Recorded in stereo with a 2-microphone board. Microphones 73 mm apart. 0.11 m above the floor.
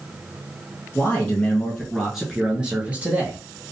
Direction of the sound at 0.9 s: 25° left (ahead or behind).